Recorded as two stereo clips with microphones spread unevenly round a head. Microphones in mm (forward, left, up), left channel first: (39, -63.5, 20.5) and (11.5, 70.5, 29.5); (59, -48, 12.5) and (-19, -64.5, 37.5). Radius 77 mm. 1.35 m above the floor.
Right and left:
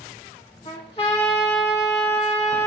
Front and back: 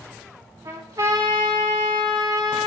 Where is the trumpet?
135° right, 0.9 m.